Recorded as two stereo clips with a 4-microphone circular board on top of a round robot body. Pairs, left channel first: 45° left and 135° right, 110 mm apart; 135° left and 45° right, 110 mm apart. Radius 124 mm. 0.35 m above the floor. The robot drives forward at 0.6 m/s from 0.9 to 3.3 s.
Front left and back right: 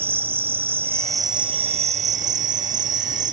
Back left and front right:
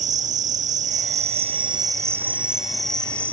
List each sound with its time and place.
0.0 s an insect: 60° right, 0.8 m; by 3.3 s 145° right, 1.3 m